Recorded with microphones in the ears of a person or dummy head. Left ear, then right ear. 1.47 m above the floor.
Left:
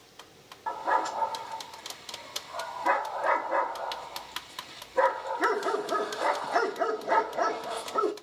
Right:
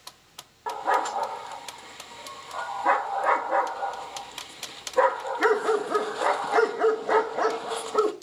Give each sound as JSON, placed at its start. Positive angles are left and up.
{"t": 0.7, "sound": "a dog barking", "side_deg": -15, "distance_m": 1.0}